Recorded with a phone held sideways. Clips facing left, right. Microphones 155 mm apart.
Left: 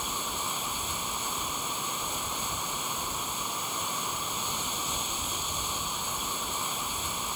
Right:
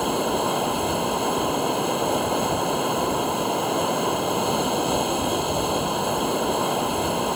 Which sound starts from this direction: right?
Running water, at 0.0 s.